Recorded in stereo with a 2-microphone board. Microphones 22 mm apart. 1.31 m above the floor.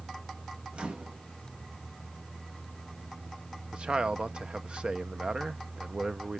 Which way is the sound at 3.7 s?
50° right (ahead or behind).